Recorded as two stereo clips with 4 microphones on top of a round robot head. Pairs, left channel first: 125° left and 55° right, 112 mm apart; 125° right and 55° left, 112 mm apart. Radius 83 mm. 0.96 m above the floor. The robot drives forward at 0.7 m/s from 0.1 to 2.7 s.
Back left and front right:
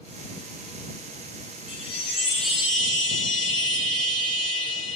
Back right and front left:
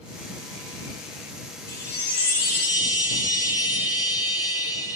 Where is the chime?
170° left, 1.9 m; by 5.0 s 175° left, 2.5 m.